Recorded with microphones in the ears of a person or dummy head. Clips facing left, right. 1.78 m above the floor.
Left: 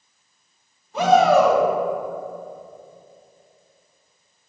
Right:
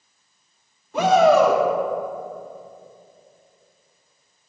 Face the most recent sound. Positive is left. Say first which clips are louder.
# even
turn(degrees=-45)  # may be behind; listen again after turning